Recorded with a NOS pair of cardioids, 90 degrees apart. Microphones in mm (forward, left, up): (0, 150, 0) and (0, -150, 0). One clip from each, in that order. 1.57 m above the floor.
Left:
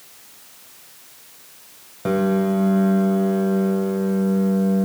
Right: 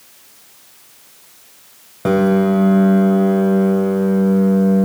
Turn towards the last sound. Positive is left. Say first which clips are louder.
# right 5 dB
turn(degrees=-35)